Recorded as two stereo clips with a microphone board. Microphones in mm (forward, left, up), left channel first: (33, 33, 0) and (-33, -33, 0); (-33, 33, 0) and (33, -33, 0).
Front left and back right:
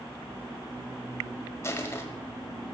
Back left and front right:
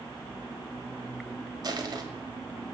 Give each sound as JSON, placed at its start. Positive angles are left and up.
{"t": 1.6, "sound": "crushing", "azimuth_deg": -10, "distance_m": 1.3}